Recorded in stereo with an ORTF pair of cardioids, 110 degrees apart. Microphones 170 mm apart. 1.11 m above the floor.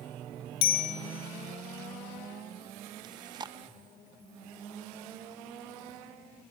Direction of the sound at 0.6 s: 65° left.